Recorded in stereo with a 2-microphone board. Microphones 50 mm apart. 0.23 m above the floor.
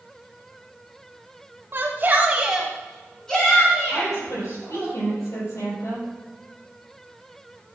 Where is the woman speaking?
75° left (ahead or behind), 6.5 m.